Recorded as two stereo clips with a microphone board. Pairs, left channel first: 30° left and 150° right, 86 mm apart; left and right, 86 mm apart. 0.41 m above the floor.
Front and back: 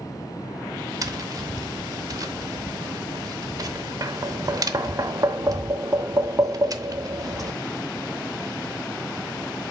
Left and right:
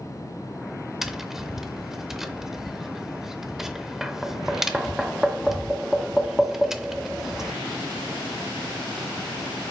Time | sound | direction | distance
1.0 | tapping | 175° right | 0.7 m